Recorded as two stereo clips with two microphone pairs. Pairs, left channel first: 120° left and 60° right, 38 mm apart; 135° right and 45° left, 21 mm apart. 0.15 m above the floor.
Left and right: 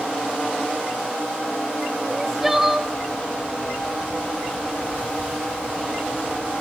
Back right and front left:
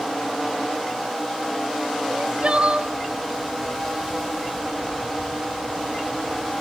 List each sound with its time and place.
2.1 s crying: 20° left, 1.2 m